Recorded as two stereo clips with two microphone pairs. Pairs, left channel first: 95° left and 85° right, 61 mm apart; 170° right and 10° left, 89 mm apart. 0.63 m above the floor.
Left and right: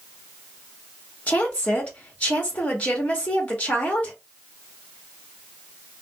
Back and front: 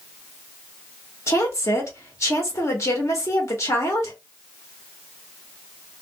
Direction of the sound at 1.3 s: 150° left.